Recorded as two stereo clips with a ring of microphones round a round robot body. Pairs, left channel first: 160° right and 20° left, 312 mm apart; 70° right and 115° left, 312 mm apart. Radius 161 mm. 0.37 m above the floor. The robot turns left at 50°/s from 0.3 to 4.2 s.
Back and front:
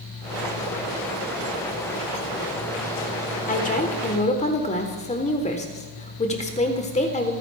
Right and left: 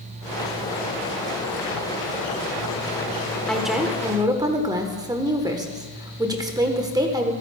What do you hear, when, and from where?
3.5 s a woman speaking: 150° right, 1.3 m; by 7.3 s 175° left, 1.3 m